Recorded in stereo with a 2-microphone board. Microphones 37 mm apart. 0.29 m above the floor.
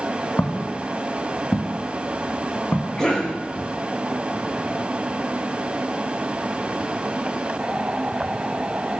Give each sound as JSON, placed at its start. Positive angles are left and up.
{"t": 0.4, "sound": "footsteps", "side_deg": 60, "distance_m": 1.0}
{"t": 3.0, "sound": "a cough", "side_deg": 15, "distance_m": 2.5}